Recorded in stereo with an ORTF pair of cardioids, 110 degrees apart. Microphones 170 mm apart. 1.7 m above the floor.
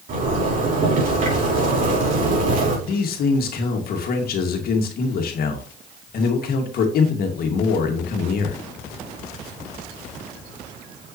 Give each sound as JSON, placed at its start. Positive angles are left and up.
{"t": 0.1, "sound": "a zipper", "azimuth_deg": -50, "distance_m": 4.5}
{"t": 2.9, "sound": "a man speaking", "azimuth_deg": 65, "distance_m": 2.0}